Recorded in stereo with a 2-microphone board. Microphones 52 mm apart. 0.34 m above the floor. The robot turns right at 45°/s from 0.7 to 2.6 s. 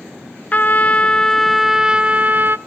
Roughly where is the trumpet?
Behind left.